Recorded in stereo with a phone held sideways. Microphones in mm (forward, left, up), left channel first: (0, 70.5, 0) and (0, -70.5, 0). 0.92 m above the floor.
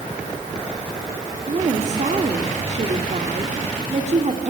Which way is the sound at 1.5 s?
55° right (ahead or behind).